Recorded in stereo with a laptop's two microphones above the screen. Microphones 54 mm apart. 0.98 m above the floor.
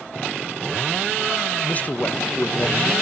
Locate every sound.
1.6 s a man speaking: 35° left (ahead or behind), 0.9 m